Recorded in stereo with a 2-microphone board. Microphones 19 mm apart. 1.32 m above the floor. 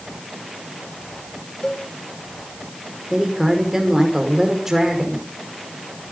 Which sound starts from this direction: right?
A woman speaking, at 3.1 s.